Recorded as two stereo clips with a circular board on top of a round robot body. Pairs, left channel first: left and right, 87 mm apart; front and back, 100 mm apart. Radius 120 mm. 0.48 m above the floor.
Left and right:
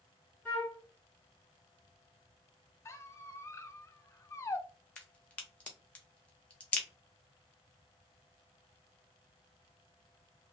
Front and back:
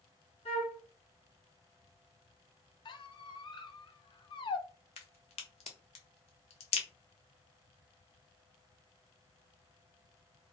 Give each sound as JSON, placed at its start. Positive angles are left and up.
{"t": 0.5, "sound": "a flute", "azimuth_deg": 20, "distance_m": 1.5}
{"t": 2.9, "sound": "a squeak", "azimuth_deg": 30, "distance_m": 0.5}
{"t": 5.0, "sound": "a crack", "azimuth_deg": 15, "distance_m": 0.7}